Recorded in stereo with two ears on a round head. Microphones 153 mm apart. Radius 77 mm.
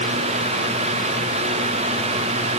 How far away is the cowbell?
No cowbell in this recording.